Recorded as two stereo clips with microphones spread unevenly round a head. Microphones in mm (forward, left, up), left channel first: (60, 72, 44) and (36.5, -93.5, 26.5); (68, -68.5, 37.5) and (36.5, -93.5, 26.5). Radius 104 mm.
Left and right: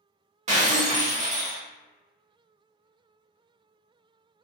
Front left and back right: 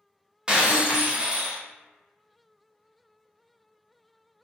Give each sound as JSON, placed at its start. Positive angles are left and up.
{"t": 0.5, "sound": "breaking glass", "azimuth_deg": -70, "distance_m": 0.8}